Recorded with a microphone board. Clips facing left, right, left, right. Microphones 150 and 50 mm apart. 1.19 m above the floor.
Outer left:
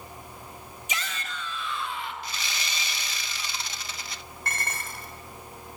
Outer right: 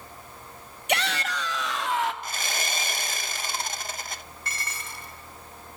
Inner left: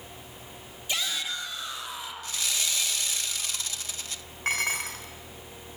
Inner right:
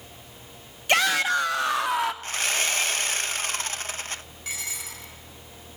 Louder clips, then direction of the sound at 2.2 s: Outer right 4 dB, inner right 6 dB; 50° right (ahead or behind).